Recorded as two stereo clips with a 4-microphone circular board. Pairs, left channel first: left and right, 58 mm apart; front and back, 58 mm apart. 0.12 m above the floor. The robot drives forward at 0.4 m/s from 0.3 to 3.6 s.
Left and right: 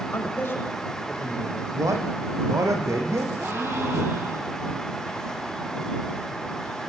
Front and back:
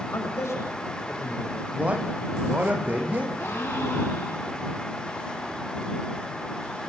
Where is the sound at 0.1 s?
40° left, 7 m.